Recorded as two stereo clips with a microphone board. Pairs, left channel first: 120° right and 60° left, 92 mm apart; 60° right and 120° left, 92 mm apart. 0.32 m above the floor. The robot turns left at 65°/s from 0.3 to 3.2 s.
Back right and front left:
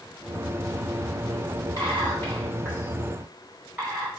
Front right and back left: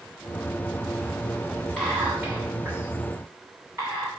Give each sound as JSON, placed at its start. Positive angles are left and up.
{"t": 1.8, "sound": "whispering", "azimuth_deg": -135, "distance_m": 1.5}